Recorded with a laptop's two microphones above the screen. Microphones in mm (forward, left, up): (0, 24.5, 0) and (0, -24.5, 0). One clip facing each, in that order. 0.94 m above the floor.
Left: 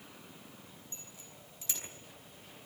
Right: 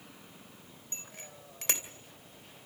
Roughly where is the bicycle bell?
Right.